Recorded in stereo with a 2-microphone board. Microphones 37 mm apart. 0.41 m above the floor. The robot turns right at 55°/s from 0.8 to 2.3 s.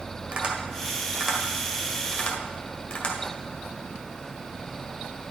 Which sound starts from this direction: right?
Tapping, at 0.3 s.